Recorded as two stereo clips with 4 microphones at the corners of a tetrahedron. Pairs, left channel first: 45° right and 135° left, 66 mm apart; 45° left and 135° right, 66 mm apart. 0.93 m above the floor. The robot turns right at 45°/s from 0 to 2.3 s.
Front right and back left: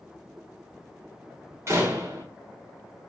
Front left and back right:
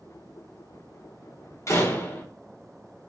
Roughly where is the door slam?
Left.